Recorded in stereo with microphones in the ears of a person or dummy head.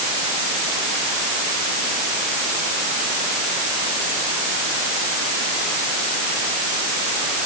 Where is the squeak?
I don't hear a squeak.